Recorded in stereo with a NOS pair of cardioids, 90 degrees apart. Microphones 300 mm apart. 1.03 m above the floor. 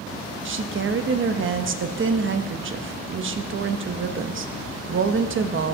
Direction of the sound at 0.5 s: 45° right.